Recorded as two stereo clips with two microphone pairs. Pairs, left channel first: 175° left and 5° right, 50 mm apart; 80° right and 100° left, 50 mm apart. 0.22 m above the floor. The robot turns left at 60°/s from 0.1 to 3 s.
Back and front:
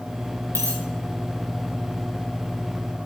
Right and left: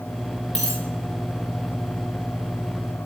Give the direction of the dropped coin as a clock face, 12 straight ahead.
5 o'clock.